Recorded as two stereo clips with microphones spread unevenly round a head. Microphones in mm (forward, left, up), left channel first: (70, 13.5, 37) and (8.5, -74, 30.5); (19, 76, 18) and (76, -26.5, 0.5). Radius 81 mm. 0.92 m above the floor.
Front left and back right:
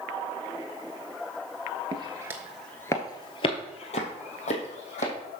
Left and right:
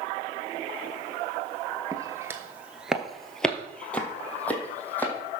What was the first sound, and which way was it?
Footsteps, 125° right.